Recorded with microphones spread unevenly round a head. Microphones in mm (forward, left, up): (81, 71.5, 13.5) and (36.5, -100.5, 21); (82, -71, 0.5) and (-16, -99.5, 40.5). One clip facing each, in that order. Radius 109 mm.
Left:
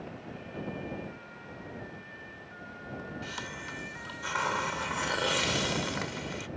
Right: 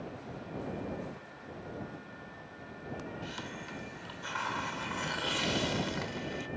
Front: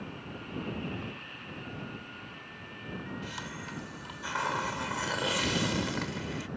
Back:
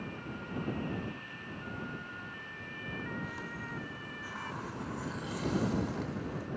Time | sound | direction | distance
3.2 | a hiss | 50° left | ?